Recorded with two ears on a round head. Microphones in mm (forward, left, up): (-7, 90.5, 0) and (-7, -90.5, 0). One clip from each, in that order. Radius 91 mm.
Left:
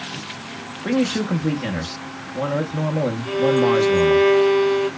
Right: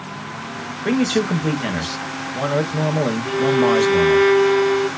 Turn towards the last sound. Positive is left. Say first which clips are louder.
# even
turn(degrees=-15)  # may be behind; listen again after turning